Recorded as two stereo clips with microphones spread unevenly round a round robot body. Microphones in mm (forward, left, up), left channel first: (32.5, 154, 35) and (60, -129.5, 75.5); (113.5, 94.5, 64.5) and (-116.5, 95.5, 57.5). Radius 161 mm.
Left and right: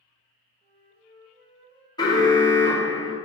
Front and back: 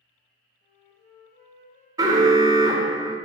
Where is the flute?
20° right, 1.5 m.